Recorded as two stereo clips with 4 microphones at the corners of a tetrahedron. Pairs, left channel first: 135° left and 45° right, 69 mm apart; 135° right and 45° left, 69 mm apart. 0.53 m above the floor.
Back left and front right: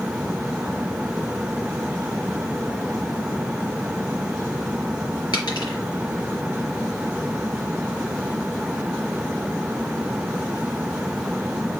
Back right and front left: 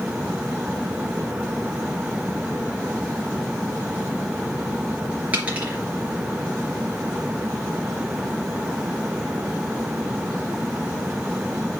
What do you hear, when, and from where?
5.3 s a dropped coin: 115° left, 4.5 m